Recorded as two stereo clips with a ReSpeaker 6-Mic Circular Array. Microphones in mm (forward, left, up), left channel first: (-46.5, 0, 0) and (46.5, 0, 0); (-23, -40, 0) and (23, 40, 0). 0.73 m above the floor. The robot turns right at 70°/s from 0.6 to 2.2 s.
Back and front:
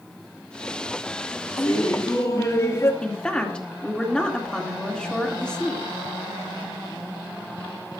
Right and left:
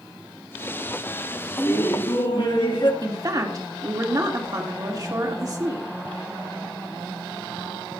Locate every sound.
1.6 s laughter: 175° right, 1.9 m; by 2.9 s 130° right, 1.9 m
3.0 s a woman speaking: 100° left, 2 m